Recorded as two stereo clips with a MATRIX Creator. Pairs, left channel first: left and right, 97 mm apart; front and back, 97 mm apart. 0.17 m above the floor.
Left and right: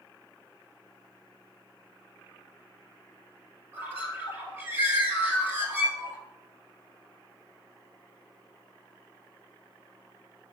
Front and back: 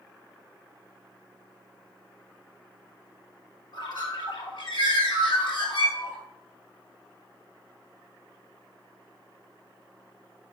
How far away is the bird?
About 1.6 m.